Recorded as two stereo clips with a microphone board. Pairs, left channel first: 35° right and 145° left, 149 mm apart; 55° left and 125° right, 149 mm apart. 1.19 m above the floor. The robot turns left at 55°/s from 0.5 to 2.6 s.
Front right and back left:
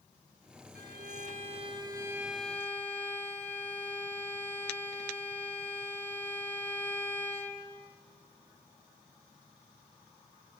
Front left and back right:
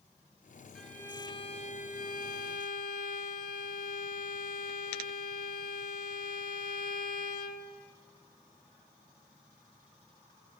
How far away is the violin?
About 4 m.